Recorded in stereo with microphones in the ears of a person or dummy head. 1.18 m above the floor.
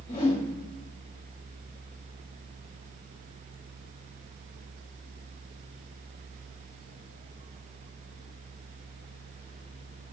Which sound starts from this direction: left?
A whoosh, at 0.1 s.